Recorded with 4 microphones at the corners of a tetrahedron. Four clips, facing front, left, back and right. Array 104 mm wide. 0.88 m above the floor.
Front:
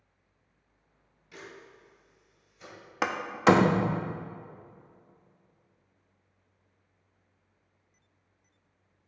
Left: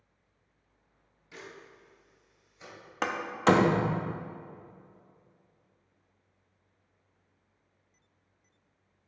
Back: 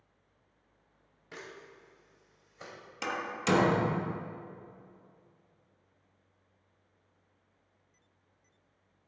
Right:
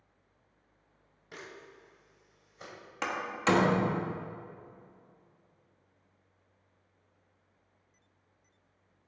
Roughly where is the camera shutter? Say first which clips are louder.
Even, even; behind right.